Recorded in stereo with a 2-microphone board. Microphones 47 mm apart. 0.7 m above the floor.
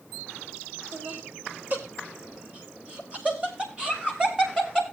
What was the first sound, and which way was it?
Laughter, 45° right (ahead or behind).